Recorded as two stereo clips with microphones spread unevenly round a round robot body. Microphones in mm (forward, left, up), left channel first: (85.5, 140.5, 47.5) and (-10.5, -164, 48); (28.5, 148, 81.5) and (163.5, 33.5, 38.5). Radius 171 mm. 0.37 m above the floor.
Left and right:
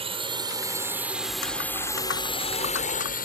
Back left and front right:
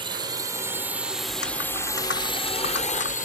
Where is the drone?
45° right; by 3.3 s 115° left.